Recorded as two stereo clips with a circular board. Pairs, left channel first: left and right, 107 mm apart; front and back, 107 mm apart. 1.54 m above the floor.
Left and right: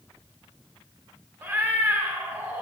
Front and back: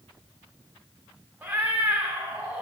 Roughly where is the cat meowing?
Behind right.